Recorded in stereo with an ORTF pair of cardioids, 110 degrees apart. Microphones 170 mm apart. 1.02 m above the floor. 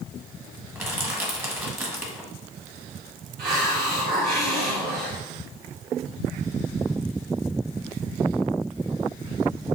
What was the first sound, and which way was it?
Crushing, 15° right.